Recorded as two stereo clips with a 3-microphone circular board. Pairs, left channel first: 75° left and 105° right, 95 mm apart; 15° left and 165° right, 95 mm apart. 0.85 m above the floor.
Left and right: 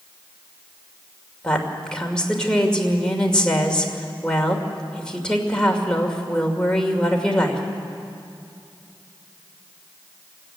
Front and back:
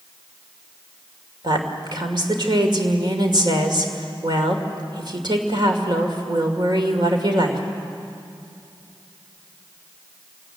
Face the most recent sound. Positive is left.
turn(degrees=155)